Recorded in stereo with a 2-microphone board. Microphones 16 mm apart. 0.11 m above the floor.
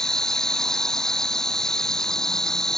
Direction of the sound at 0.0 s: 40° left (ahead or behind).